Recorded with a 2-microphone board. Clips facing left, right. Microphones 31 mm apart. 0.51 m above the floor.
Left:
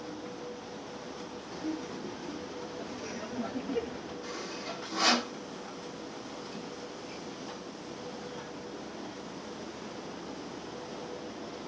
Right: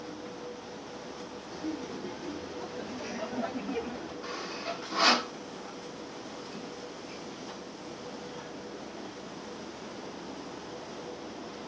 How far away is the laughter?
About 0.8 m.